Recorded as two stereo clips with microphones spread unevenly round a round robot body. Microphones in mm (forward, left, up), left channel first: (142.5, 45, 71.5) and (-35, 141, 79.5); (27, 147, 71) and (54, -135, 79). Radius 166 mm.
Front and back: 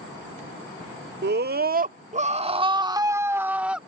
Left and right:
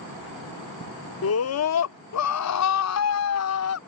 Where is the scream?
125° left; by 3.8 s 65° left.